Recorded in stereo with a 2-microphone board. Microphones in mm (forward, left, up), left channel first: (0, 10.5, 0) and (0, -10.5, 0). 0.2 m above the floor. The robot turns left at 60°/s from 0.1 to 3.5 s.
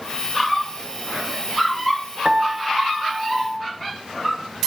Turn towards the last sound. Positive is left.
turn(degrees=-130)